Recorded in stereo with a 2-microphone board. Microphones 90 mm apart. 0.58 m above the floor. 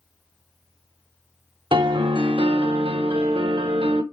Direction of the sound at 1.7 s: 70° right (ahead or behind).